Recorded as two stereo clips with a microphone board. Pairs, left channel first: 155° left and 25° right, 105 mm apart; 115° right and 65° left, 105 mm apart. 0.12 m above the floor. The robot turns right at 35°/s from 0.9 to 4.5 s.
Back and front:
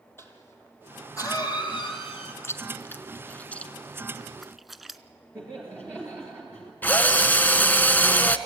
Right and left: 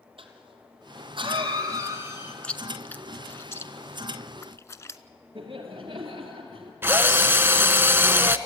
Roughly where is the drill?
Left.